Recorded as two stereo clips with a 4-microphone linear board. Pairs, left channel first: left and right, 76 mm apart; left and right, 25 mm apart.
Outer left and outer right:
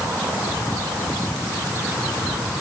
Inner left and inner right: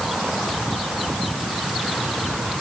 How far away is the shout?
I don't hear a shout.